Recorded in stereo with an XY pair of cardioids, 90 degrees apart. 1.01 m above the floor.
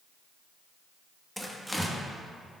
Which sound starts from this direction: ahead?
Tearing paper, at 1.4 s.